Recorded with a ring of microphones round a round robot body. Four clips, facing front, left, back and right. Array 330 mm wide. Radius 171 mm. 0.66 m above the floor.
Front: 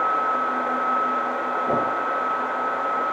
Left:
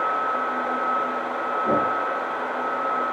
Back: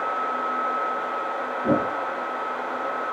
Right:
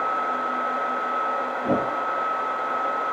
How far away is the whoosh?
About 6.5 m.